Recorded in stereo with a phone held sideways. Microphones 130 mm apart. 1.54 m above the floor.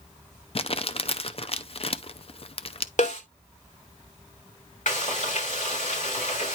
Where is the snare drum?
70° left (ahead or behind), 3 m.